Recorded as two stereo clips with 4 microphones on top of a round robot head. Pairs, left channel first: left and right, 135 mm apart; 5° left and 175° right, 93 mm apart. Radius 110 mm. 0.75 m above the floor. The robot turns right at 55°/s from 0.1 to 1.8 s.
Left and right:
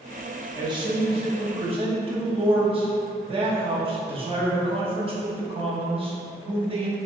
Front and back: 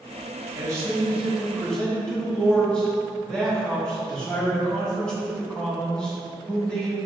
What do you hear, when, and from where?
0.6 s a man speaking: 140° right, 0.9 m; by 7.0 s 70° right, 0.9 m